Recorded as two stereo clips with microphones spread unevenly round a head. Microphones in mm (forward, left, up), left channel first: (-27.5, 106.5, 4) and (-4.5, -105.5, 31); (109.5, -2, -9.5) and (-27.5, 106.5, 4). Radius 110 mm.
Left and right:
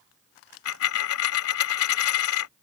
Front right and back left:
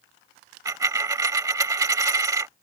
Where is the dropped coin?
75° left.